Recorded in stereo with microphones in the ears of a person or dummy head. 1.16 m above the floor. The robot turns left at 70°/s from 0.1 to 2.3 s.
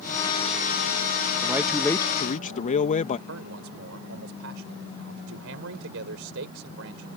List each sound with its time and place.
1.4 s a man speaking: 160° right; by 3.2 s 140° left
3.3 s a man speaking: 70° right (ahead or behind)